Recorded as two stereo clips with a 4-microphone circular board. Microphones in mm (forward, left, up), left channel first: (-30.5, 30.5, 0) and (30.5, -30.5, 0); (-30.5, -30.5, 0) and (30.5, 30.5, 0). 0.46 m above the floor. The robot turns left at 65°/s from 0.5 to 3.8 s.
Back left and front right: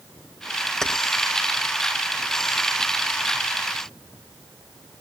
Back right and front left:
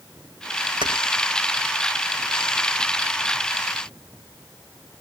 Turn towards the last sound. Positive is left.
turn(degrees=-145)